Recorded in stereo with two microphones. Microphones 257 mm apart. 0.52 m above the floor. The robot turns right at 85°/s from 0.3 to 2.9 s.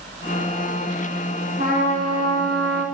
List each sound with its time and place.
1.6 s a trumpet: 155° right, 4 m; by 2.9 s 45° right, 4 m